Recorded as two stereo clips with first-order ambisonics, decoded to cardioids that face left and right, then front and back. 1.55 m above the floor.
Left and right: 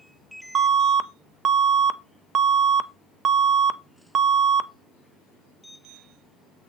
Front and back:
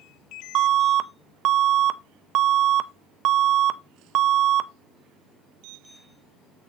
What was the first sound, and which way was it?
An alarm, 145° right.